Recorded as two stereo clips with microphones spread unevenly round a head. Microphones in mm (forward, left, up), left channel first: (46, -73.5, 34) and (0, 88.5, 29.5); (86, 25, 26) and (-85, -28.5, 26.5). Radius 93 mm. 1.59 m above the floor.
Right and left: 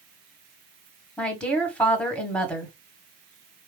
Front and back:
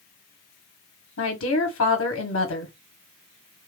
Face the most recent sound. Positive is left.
turn(degrees=5)